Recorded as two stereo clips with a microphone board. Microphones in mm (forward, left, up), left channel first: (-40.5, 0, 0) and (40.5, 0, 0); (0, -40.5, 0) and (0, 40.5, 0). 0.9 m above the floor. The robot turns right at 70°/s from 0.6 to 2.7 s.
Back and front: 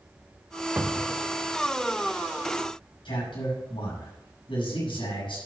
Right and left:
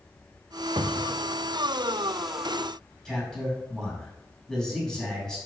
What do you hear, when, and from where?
0.8 s a cupboard door: 75° left, 0.7 m; by 1.2 s 105° left, 0.7 m
3.0 s a man speaking: 175° right, 6 m